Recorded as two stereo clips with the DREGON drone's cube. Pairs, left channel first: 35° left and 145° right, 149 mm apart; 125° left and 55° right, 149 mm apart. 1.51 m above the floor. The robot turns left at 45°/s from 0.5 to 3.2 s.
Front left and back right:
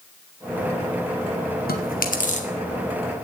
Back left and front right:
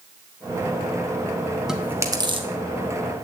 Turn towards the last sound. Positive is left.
turn(degrees=-40)